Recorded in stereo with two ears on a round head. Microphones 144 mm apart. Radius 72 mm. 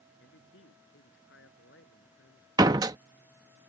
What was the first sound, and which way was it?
A man speaking, 85° left.